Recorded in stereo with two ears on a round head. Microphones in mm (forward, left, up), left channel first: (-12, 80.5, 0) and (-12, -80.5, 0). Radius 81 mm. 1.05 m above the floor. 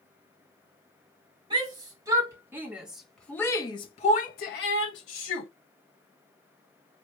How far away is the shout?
About 1.9 m.